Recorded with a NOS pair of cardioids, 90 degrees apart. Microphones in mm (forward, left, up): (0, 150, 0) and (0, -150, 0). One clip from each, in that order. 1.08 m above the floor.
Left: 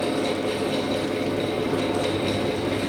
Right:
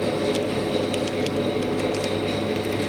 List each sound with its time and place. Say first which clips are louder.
0.0 s a fan: right 1 dB; 60° left, 3 m